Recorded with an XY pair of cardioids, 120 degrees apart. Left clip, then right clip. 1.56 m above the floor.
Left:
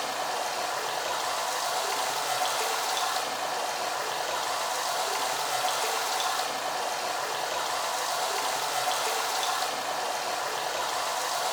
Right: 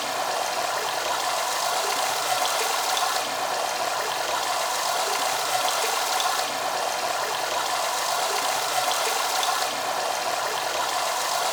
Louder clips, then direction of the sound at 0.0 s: Right 4 dB; 35° right.